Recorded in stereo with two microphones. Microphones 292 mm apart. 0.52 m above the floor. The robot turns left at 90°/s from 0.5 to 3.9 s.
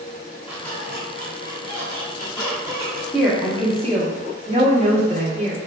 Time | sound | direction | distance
0.5 | a squeak | 175° right | 0.9 m
3.1 | a woman speaking | centre (ahead or behind) | 0.8 m